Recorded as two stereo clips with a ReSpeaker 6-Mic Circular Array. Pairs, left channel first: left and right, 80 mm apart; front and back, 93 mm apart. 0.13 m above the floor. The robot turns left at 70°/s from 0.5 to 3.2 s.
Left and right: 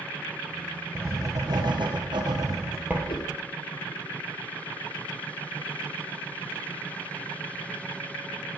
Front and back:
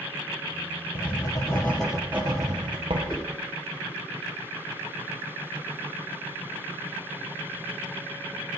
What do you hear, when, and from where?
0.9 s writing: 25° right, 3.5 m; by 3.0 s 165° right, 3.5 m
3.1 s a whoosh: 85° left, 4.5 m; by 3.3 s 75° left, 4.5 m